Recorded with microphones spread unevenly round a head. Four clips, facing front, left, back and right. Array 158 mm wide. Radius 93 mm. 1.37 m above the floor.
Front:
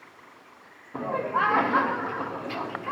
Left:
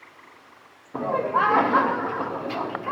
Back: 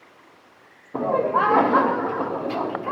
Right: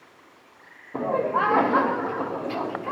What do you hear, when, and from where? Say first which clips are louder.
0.9 s laughter: left 1 dB, back 6 dB; 165° right, 0.5 m